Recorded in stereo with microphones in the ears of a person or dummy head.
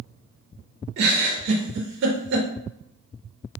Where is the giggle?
60° right (ahead or behind), 0.6 m.